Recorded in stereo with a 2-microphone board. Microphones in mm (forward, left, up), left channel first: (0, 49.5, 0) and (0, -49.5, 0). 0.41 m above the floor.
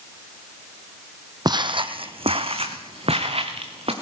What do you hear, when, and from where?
1.4 s footsteps: 45° right (ahead or behind), 0.7 m; by 3.9 s 75° right (ahead or behind), 2.5 m